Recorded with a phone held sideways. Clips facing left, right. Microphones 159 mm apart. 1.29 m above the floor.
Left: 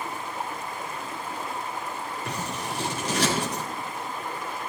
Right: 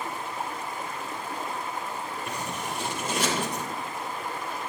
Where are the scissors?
80° left, 4.5 m.